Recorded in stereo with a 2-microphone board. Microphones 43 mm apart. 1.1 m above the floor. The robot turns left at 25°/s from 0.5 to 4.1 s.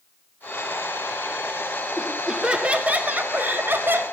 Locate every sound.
2.0 s laughter: 10° right, 1.3 m; by 4.0 s 65° right, 1.3 m